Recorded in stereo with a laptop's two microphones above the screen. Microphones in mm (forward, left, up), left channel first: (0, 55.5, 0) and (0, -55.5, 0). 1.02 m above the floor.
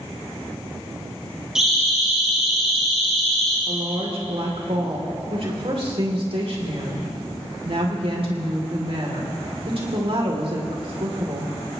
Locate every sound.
1.6 s a siren: 5° right (ahead or behind), 7 m; by 3.6 s 5° left (ahead or behind), 5 m
3.7 s a woman speaking: 55° right (ahead or behind), 2.5 m